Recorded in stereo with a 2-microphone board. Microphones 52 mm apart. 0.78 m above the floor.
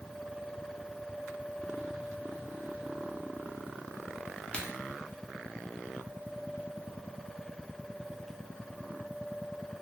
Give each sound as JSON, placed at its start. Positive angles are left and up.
{"t": 4.5, "sound": "a crack", "side_deg": 20, "distance_m": 0.7}